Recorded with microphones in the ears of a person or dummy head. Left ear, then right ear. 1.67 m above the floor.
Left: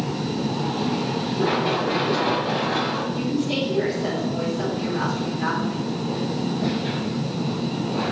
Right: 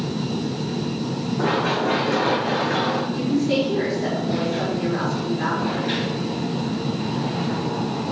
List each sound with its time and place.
1.4 s running footsteps: 50° right (ahead or behind), 5 m; by 3.0 s 40° right (ahead or behind), 5 m
3.1 s a woman speaking: 40° right (ahead or behind), 5 m